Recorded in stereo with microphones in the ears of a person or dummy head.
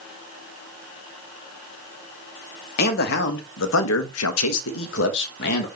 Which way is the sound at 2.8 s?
50° left (ahead or behind).